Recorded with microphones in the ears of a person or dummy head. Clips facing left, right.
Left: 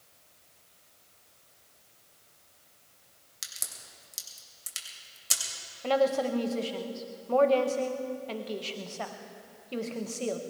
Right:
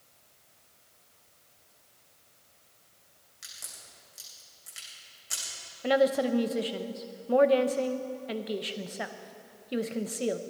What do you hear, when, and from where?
3.4 s a crack: 70° left (ahead or behind), 3.5 m
5.8 s a woman speaking: 20° right (ahead or behind), 0.9 m